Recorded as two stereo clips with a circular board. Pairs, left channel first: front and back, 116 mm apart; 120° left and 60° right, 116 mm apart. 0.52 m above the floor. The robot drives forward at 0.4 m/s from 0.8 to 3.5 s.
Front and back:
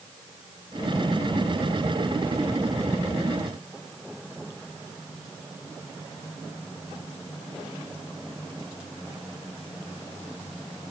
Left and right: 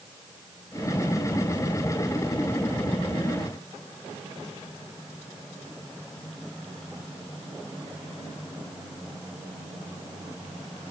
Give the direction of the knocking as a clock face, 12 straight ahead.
I don't hear knocking.